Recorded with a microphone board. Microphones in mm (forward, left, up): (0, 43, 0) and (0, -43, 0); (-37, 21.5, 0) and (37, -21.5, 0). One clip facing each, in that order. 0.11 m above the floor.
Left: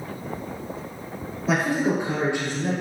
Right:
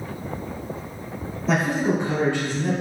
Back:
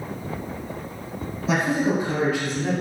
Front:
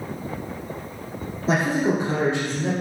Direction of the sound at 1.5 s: 5° left.